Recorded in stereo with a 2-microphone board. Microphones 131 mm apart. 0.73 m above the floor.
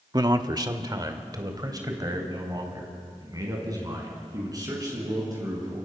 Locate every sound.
0.1 s a man speaking: 30° right (ahead or behind), 1.0 m